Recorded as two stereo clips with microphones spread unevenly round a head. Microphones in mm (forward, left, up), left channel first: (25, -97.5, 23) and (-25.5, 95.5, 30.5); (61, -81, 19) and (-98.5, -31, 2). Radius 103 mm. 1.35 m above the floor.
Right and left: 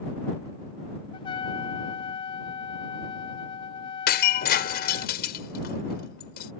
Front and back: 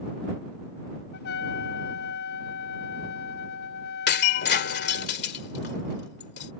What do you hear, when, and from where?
1.1 s a trumpet: 10° right
4.1 s breaking glass: 30° right